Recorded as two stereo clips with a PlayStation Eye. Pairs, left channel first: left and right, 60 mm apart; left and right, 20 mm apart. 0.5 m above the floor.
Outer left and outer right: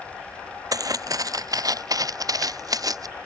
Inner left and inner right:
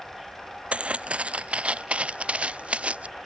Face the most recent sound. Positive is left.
turn(degrees=-85)